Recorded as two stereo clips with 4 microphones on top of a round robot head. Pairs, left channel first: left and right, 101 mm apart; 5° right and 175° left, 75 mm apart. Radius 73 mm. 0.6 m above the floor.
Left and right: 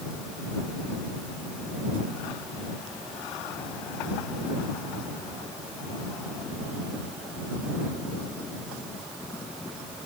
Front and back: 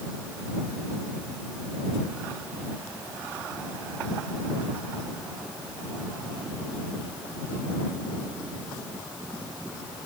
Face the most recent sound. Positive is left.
No sound to turn to.